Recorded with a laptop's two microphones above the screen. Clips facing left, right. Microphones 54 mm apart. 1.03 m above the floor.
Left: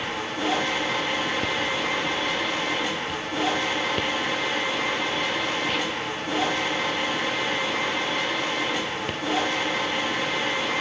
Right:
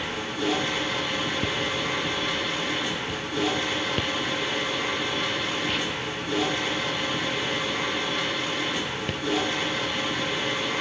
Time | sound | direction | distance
0.0 | a machine running | 50° left (ahead or behind) | 8.5 m